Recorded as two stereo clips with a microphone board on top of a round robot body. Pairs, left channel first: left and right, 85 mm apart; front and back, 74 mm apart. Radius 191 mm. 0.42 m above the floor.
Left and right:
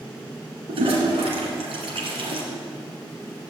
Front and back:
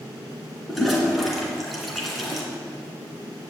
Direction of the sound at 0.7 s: 90° right.